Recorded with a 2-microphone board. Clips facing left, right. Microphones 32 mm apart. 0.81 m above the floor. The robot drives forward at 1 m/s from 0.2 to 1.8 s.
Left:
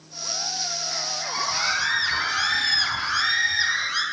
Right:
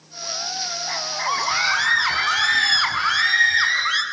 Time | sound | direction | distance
0.9 | a scream | 75° right (ahead or behind) | 6.5 m